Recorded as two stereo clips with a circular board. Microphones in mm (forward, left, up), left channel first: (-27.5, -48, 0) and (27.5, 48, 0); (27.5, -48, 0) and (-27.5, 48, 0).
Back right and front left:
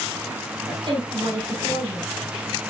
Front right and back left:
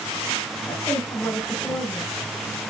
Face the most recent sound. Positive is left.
turn(degrees=15)